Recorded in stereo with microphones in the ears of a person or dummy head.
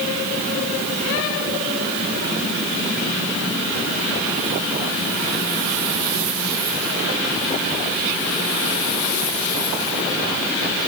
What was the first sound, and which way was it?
Only background noise.